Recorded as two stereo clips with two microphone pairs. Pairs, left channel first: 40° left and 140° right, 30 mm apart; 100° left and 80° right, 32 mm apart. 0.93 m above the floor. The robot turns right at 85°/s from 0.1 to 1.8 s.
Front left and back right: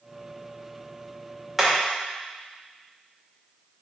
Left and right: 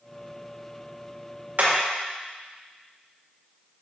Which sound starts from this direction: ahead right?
Hammering, at 1.6 s.